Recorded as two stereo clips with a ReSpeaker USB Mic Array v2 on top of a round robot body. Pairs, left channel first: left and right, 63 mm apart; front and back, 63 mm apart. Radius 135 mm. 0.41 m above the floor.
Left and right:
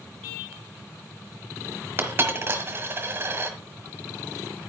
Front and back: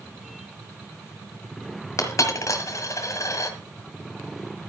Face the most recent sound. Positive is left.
turn(degrees=-35)